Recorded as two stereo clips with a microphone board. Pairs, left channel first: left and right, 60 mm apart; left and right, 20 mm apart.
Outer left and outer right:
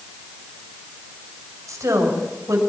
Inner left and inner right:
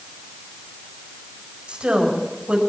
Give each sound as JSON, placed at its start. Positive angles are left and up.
{"t": 1.7, "sound": "a woman speaking", "side_deg": -70, "distance_m": 5.0}